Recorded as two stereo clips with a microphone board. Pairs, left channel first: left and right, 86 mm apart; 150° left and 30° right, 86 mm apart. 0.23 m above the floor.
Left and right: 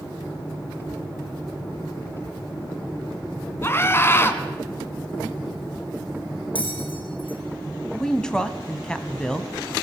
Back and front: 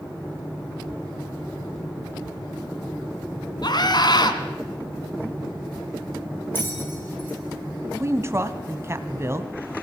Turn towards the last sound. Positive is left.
turn(degrees=10)